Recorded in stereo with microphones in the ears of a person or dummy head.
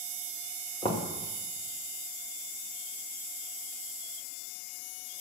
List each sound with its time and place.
0.8 s knocking: 25° left (ahead or behind), 1.6 m